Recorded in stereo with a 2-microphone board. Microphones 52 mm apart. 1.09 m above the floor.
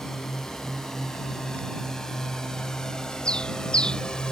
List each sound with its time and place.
0.0 s a drone: 10° left (ahead or behind); by 4.3 s 15° left (ahead or behind)
3.2 s a bird: 15° left (ahead or behind)